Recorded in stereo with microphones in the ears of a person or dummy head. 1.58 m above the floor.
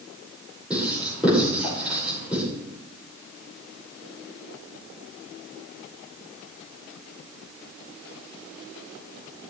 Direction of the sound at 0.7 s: 10° right (ahead or behind).